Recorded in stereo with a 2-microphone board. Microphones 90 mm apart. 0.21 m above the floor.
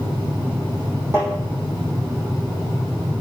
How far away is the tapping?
About 4 m.